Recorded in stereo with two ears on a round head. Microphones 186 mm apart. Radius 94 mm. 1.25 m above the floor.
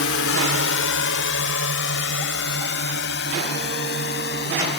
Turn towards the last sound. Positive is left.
turn(degrees=55)  # may be behind; listen again after turning